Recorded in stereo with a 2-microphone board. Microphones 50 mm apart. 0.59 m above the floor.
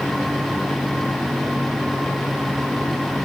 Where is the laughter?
No laughter in this recording.